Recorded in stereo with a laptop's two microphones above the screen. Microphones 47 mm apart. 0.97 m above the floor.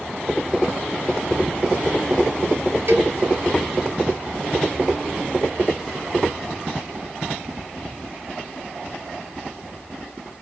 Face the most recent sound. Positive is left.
turn(degrees=-60)  # may be behind; listen again after turning